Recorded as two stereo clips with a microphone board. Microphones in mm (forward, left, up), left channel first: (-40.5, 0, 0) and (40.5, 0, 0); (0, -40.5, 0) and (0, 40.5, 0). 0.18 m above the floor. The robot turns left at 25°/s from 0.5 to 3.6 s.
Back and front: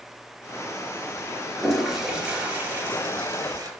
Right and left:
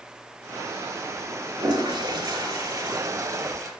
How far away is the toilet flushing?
About 2 m.